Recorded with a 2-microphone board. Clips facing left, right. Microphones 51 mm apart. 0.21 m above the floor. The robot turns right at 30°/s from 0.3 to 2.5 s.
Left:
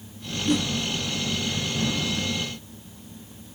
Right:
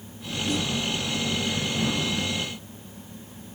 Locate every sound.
0.5 s a whoosh: 55° left (ahead or behind), 1.1 m; by 0.7 s 50° left (ahead or behind), 1.1 m